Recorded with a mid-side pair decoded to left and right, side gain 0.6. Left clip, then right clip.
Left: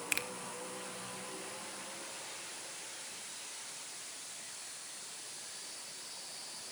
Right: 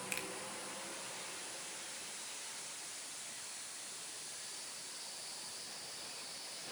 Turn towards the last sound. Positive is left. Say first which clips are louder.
# left 7 dB
turn(degrees=35)